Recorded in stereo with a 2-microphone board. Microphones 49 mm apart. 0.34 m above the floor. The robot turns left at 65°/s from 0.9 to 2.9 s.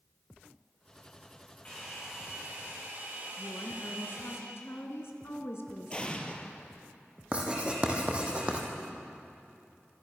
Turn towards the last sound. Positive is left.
turn(degrees=-25)  # may be behind; listen again after turning